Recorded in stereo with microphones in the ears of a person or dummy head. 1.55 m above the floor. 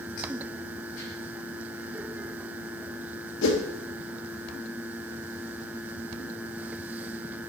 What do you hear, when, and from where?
3.4 s a whoosh: 70° left (ahead or behind), 1.7 m